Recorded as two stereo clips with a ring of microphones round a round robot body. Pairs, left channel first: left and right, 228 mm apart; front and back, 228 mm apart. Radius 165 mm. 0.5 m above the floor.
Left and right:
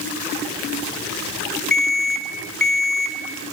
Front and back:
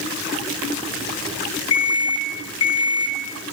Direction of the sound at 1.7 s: 5° left.